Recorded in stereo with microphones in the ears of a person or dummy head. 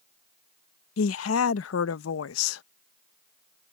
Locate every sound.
1.0 s a woman speaking: 85° left